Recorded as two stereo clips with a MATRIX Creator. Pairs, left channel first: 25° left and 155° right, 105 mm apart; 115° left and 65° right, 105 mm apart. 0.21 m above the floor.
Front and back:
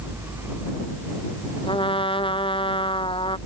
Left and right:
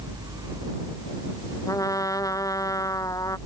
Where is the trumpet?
55° left.